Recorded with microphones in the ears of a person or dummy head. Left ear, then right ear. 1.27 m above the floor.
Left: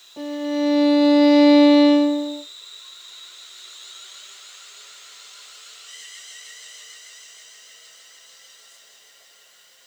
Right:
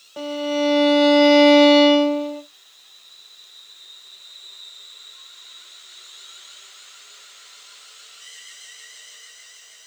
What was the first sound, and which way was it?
A violin, 70° right (ahead or behind).